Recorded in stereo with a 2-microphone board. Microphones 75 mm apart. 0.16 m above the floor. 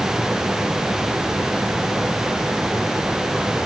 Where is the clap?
No clap in this recording.